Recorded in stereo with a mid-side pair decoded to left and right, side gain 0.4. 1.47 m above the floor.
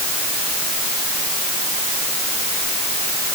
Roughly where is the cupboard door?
I don't hear a cupboard door.